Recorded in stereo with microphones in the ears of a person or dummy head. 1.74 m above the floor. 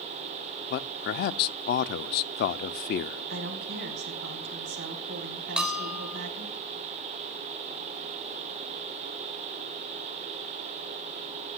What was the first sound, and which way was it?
A man speaking, 55° left (ahead or behind).